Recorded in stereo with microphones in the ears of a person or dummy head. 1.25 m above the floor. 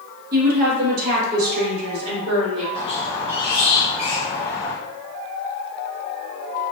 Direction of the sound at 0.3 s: 55° right (ahead or behind).